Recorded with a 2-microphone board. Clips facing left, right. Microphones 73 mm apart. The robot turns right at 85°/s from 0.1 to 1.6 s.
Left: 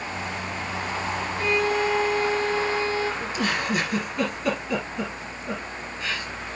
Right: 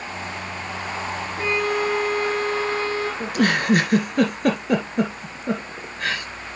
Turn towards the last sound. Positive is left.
turn(degrees=-60)  # may be behind; listen again after turning